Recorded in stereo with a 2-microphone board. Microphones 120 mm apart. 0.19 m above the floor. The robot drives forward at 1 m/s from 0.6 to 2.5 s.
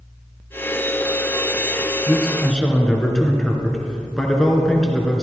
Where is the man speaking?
5° left (ahead or behind), 1.8 m.